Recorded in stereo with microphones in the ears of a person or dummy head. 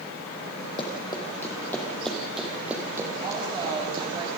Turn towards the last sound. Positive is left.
turn(degrees=-25)  # may be behind; listen again after turning